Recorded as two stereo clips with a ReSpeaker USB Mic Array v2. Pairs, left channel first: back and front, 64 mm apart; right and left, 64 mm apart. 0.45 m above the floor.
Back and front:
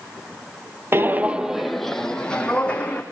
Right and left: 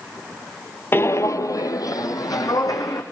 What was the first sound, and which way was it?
Footsteps, 40° right.